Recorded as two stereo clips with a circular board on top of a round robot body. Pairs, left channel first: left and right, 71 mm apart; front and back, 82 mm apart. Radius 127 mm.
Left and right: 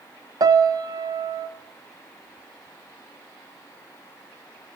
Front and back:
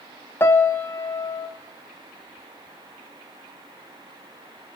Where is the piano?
60° right, 0.6 m.